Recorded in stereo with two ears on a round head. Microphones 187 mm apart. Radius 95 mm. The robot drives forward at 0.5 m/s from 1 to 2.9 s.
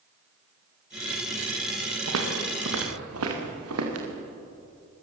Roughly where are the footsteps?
Right.